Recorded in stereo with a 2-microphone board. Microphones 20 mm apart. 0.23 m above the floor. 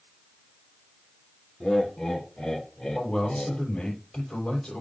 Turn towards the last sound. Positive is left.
turn(degrees=55)  # may be behind; listen again after turning